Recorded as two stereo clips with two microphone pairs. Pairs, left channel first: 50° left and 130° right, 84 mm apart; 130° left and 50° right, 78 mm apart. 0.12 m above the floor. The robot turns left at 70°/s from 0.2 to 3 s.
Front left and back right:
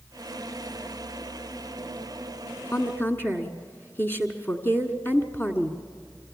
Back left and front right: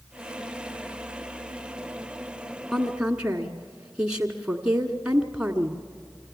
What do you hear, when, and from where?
2.7 s a woman speaking: 35° left, 1.5 m; by 5.8 s 15° left, 1.5 m